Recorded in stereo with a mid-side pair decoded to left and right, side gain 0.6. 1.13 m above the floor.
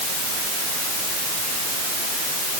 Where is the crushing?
No crushing in this recording.